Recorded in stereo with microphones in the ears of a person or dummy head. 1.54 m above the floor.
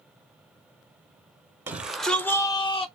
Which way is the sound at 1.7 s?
10° right (ahead or behind).